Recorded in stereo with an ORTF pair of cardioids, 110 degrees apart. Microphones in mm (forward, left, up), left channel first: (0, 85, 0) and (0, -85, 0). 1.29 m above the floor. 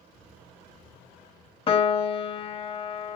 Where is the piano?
35° left, 0.6 m.